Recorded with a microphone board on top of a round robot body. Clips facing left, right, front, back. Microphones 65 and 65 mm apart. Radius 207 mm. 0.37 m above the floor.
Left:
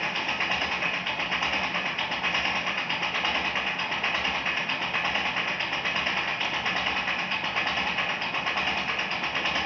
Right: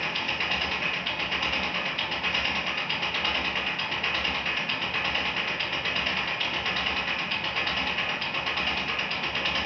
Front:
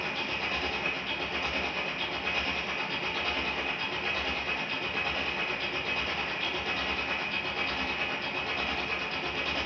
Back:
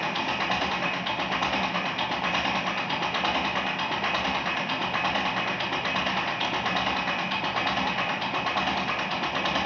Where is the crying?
No crying in this recording.